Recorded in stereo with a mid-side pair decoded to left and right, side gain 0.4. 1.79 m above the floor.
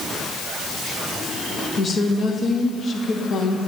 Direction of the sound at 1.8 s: 55° left.